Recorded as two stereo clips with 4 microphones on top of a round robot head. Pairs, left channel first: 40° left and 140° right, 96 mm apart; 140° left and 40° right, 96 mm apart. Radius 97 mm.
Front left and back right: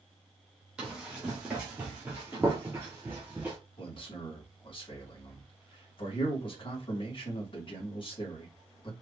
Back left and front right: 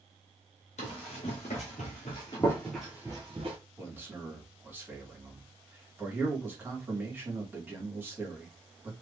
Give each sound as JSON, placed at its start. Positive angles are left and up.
{"t": 0.8, "sound": "running footsteps", "azimuth_deg": 140, "distance_m": 1.2}
{"t": 3.8, "sound": "a man speaking", "azimuth_deg": 25, "distance_m": 1.7}